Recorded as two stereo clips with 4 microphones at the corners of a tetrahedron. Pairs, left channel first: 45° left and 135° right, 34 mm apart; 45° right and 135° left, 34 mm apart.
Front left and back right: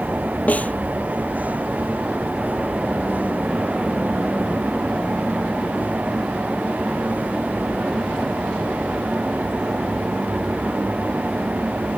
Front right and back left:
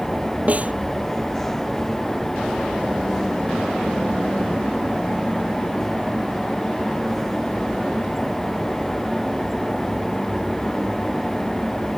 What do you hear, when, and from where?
0.5 s a snare drum: 90° left